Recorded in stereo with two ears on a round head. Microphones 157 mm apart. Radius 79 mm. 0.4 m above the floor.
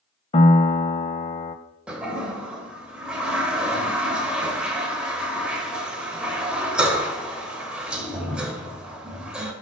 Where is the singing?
No singing in this recording.